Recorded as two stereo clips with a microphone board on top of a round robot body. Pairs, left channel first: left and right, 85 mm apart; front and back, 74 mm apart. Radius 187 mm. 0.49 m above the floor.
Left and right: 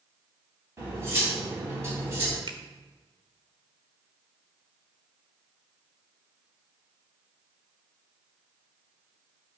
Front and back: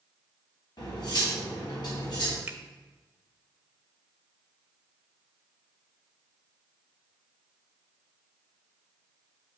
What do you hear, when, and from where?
0.8 s cutlery clinking: 30° right, 2.5 m
2.5 s a finger snap: 115° right, 1.2 m